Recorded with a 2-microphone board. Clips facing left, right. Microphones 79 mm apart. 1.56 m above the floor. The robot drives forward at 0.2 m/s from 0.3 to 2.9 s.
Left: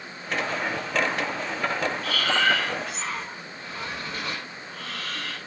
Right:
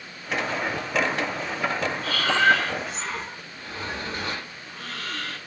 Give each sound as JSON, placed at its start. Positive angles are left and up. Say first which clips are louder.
{"t": 2.0, "sound": "breathing", "louder": "right 5 dB", "side_deg": -35, "distance_m": 1.2}